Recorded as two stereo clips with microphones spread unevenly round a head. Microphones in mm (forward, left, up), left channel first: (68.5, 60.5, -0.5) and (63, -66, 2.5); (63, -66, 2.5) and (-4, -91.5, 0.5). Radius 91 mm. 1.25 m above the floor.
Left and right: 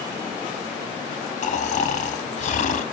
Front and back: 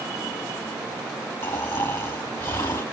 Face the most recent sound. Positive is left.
turn(degrees=85)